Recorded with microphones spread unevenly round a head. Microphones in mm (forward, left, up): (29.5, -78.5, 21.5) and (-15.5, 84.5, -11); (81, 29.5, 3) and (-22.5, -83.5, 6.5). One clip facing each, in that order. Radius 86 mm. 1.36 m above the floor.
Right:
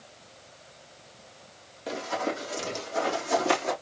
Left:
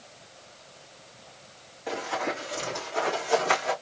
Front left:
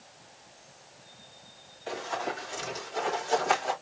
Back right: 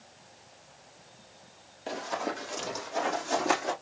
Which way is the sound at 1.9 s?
100° right.